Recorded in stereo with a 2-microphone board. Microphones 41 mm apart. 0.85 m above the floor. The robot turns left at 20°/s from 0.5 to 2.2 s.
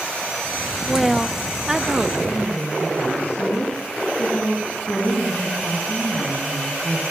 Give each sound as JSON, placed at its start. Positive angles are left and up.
{"t": 0.9, "sound": "a woman speaking", "side_deg": 5, "distance_m": 0.6}
{"t": 2.2, "sound": "a woman speaking", "side_deg": 35, "distance_m": 8.0}